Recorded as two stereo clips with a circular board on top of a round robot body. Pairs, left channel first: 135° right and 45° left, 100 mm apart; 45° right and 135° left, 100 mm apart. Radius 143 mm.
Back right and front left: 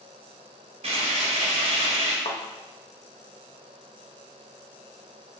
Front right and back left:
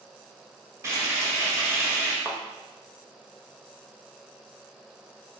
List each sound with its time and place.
0.8 s frying: 70° left, 1.5 m
2.2 s a thud: 150° right, 0.8 m